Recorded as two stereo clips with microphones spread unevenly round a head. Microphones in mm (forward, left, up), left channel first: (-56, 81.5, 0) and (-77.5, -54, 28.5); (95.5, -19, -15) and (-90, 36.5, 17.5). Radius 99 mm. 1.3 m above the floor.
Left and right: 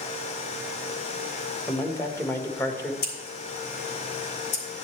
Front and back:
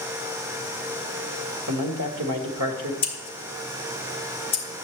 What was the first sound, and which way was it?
A man speaking, 155° left.